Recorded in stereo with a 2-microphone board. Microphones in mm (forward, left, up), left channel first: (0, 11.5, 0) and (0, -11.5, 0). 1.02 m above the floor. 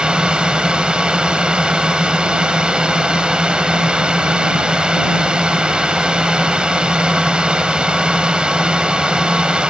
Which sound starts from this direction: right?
A drone, at 0.0 s.